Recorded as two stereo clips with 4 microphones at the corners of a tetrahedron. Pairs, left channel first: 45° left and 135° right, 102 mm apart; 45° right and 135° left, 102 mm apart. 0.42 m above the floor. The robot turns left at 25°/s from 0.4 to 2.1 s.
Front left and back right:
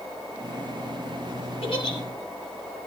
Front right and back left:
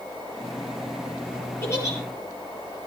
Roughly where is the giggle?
Ahead.